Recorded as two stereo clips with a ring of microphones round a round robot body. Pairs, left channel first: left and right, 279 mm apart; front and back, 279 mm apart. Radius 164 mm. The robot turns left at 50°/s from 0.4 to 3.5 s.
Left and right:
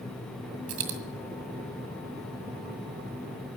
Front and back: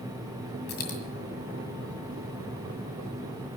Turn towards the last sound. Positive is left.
turn(degrees=165)